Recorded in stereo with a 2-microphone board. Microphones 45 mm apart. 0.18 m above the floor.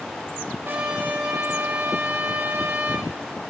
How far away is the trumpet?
About 7 m.